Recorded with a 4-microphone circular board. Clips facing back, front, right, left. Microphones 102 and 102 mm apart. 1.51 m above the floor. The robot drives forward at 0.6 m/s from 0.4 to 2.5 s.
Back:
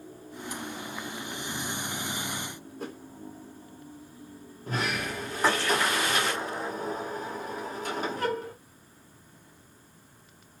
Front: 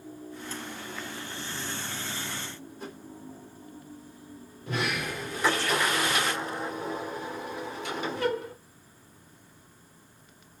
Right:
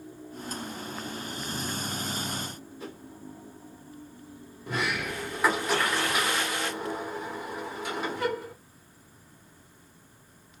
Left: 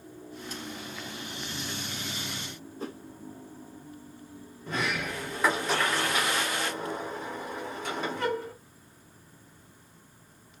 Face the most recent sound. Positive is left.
turn(degrees=-170)